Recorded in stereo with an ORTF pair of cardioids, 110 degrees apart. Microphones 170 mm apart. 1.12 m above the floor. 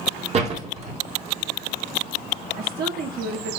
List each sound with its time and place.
0.3 s a door slam: 40° right, 2.5 m
2.5 s a woman speaking: 70° right, 2.5 m